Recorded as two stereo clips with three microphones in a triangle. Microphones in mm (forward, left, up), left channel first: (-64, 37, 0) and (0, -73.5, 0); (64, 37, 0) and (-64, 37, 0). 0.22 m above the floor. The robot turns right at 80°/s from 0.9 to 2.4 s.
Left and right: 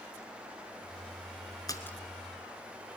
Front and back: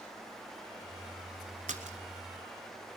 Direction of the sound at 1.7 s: Straight behind.